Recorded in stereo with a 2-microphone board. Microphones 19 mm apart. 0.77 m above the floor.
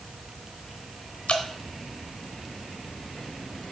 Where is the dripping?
70° left (ahead or behind), 1.0 m.